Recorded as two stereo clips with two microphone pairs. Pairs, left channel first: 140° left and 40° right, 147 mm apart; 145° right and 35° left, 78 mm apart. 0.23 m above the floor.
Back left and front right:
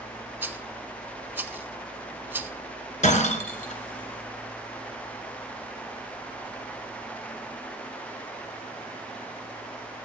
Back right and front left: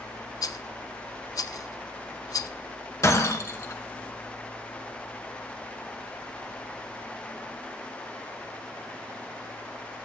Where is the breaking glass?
170° left, 1.7 m.